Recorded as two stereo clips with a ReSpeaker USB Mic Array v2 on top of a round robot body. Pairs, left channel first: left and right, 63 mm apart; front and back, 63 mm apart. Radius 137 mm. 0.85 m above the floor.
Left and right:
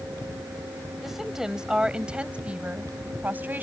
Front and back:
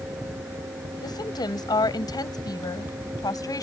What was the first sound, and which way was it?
A woman speaking, 5° right.